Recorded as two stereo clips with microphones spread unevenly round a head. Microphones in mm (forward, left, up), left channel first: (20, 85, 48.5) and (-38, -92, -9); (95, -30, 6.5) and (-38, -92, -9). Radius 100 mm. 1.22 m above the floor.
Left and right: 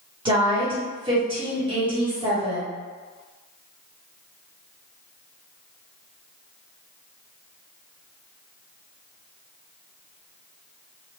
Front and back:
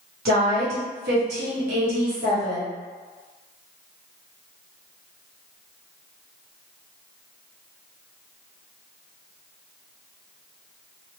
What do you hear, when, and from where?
0.2 s a woman speaking: 170° right, 1.4 m